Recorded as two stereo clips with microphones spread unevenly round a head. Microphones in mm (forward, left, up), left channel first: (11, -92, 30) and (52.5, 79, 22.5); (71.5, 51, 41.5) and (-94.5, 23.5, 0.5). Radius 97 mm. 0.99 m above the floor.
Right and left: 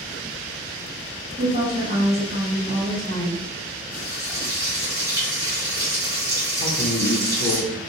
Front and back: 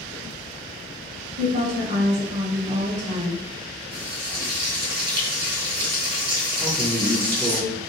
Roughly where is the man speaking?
Right.